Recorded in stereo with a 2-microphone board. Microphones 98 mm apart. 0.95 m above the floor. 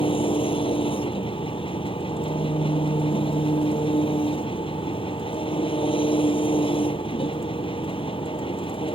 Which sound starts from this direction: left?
An engine running, at 0.0 s.